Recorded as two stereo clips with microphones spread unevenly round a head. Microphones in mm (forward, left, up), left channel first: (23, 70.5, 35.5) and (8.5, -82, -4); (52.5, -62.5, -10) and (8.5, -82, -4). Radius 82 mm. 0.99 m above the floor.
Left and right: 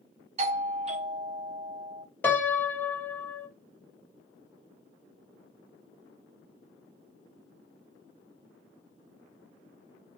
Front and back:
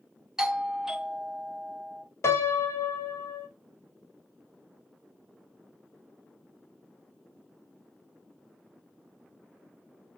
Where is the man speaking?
I don't hear a man speaking.